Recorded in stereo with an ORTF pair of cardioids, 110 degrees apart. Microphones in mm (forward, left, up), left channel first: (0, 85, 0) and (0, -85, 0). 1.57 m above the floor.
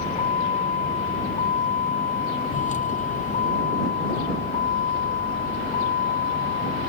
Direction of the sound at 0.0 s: 40° left.